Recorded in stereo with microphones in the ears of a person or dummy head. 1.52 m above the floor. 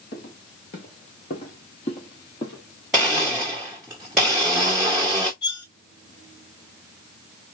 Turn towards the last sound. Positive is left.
turn(degrees=65)  # may be behind; listen again after turning